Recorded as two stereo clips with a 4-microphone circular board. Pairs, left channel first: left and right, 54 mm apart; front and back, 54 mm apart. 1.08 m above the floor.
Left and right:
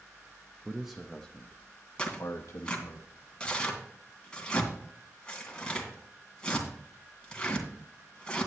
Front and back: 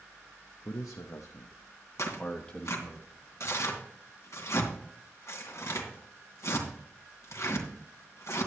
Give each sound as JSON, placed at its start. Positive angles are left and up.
{"t": 0.7, "sound": "a man speaking", "azimuth_deg": -15, "distance_m": 0.9}
{"t": 2.0, "sound": "tearing paper", "azimuth_deg": 20, "distance_m": 2.5}